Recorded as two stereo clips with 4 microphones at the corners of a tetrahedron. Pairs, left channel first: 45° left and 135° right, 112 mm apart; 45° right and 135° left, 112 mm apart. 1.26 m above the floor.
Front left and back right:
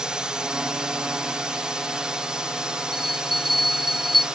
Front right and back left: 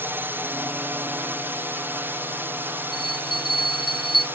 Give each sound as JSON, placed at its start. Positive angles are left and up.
{"t": 0.0, "sound": "a drone", "azimuth_deg": 155}
{"t": 2.9, "sound": "a bell", "azimuth_deg": 0}